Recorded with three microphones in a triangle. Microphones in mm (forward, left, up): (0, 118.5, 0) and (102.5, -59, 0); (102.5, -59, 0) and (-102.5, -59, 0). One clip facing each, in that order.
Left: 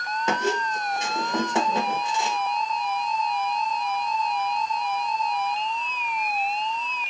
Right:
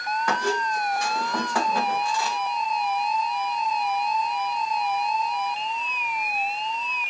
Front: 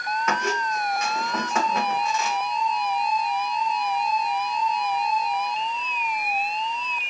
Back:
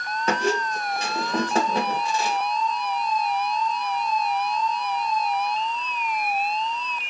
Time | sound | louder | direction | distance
0.3 | a squeak | left 1 dB, back 5 dB | 165° left | 0.6 m